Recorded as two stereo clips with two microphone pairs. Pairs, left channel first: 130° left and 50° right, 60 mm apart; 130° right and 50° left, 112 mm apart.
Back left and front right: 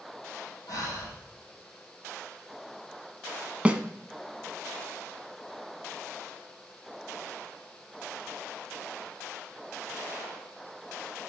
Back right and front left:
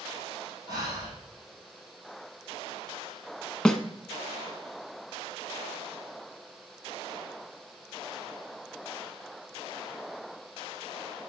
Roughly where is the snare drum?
Ahead right.